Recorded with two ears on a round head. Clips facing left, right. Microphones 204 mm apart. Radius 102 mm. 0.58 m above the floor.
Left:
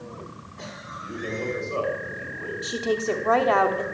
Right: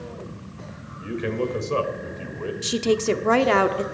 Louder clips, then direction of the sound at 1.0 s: Right 5 dB; 65° right (ahead or behind).